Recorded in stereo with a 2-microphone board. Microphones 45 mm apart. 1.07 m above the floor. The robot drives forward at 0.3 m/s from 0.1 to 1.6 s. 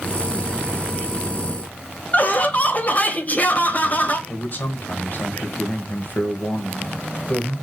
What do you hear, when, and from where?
2.1 s laughter: 35° left (ahead or behind), 0.9 m
4.3 s a man speaking: 45° left (ahead or behind), 1.3 m